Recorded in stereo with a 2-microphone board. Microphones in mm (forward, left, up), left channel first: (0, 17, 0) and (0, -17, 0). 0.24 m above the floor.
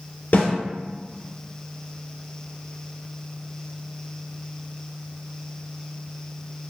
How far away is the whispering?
No whispering in this recording.